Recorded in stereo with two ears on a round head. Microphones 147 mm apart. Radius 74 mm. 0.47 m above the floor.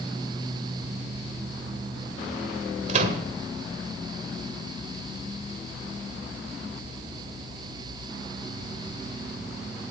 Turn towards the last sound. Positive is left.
turn(degrees=-50)  # may be behind; listen again after turning